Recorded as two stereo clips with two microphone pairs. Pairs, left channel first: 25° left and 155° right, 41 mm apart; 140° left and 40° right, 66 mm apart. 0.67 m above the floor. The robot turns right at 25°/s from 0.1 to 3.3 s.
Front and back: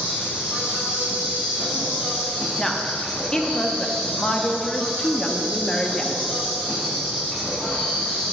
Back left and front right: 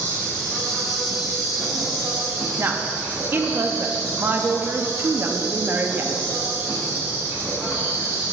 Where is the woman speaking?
40° right, 0.5 m; by 6.3 s 20° right, 0.5 m.